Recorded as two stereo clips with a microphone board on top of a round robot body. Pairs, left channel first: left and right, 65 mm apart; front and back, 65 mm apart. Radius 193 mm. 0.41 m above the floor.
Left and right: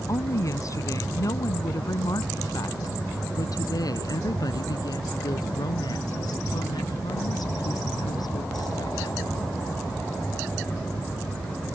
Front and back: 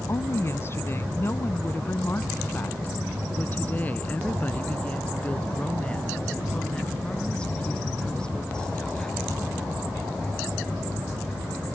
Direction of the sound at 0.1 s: 50° left.